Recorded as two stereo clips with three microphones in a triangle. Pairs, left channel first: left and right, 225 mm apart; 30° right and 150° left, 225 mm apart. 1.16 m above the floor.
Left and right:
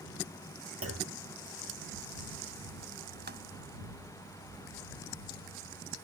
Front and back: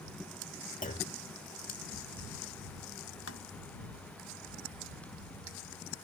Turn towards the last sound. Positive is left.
turn(degrees=-45)